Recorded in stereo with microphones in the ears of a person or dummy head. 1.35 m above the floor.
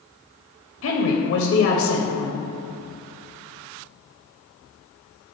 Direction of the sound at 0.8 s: 65° left (ahead or behind).